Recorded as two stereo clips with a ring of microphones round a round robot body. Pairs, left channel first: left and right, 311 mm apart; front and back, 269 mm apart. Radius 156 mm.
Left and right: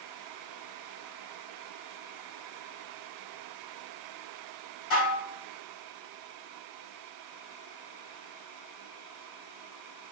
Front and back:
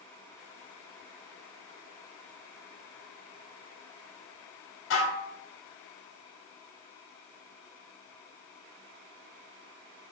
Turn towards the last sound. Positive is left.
turn(degrees=40)